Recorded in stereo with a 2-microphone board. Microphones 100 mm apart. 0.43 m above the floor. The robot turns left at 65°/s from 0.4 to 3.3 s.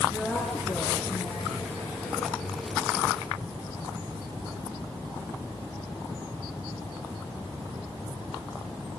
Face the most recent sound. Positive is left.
turn(degrees=-20)